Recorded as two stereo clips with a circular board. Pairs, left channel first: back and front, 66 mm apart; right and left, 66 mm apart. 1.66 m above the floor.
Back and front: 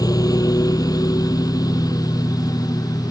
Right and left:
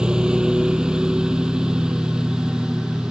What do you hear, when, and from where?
0.0 s a lawn mower: 170° left